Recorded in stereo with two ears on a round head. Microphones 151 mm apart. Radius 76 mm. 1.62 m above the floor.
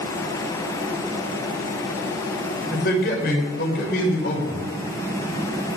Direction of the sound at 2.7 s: 60° left (ahead or behind).